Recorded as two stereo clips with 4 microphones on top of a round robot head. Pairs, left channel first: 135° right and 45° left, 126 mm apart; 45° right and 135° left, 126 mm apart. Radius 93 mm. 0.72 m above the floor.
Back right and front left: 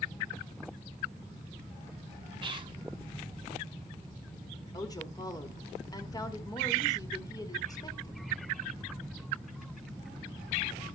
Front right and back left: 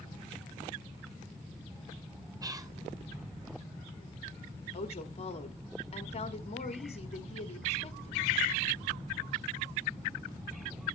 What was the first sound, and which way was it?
Whispering, 85° left.